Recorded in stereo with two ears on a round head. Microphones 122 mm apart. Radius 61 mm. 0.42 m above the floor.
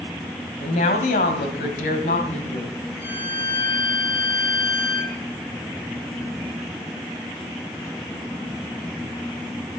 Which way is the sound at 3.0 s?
10° left (ahead or behind).